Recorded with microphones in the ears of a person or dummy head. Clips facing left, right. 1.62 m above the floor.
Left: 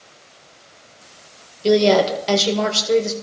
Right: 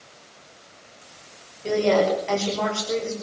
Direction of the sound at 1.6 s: 45° left (ahead or behind).